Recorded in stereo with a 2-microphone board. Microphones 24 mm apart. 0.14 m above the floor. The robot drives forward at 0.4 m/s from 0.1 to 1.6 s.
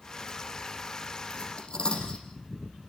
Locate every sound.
1.3 s cutlery clinking: 45° left (ahead or behind), 4.5 m